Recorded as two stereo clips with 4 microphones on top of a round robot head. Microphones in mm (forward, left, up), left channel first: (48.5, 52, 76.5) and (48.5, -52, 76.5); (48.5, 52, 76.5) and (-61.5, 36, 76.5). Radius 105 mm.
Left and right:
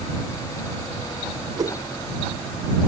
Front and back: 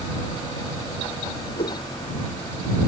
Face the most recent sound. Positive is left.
turn(degrees=-35)